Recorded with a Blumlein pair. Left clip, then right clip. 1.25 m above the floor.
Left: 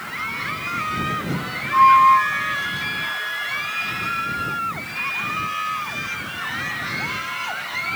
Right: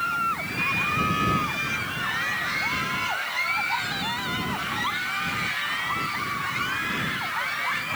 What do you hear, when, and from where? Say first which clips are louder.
1.7 s a flute: left 16 dB; 45° left